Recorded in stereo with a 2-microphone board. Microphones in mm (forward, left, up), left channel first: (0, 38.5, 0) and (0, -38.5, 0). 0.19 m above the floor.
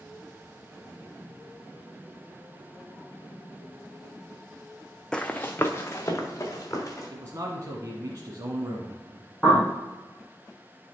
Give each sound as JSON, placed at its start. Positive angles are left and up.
{"t": 5.1, "sound": "running footsteps", "side_deg": 10, "distance_m": 0.6}
{"t": 7.1, "sound": "a man speaking", "side_deg": -45, "distance_m": 1.4}
{"t": 9.4, "sound": "a bird", "side_deg": 0, "distance_m": 3.0}